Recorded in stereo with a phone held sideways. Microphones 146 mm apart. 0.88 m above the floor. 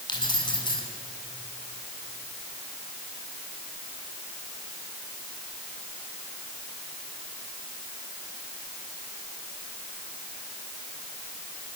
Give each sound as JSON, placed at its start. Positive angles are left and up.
{"t": 0.1, "sound": "keys jangling", "side_deg": 30, "distance_m": 6.0}